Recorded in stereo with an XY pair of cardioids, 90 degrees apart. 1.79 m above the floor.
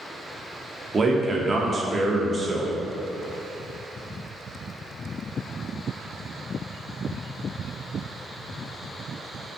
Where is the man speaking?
35° right, 0.5 m.